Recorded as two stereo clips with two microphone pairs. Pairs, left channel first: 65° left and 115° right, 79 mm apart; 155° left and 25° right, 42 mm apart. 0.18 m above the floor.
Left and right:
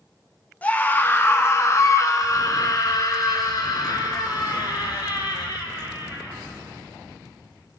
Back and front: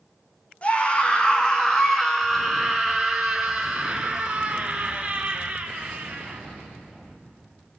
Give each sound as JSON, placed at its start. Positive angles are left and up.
{"t": 0.6, "sound": "a scream", "azimuth_deg": 125, "distance_m": 1.6}